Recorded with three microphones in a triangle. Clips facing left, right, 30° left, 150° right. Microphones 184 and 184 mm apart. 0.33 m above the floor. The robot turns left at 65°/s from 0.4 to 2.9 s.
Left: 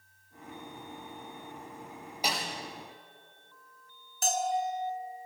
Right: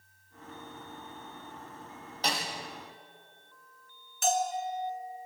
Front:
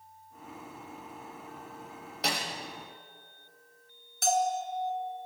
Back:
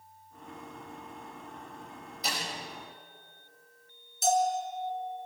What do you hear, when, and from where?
2.2 s a snare drum: 10° left, 7 m; by 2.5 s 5° right, 7 m
4.2 s a bell: 40° left, 3 m